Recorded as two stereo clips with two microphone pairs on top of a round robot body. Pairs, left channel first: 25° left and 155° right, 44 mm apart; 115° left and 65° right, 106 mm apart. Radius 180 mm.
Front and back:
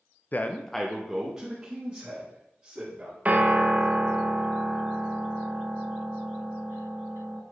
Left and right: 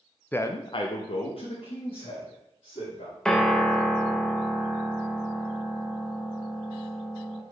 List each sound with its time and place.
0.3 s a man speaking: 50° left, 0.7 m; by 3.1 s 150° left, 3 m
3.2 s a piano: 160° right, 1.0 m